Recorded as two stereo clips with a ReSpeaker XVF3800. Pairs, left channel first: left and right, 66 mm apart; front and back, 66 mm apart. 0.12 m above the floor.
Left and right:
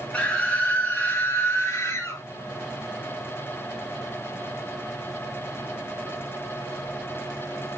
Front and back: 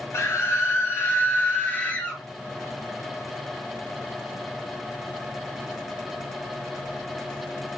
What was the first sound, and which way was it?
A scream, 20° left.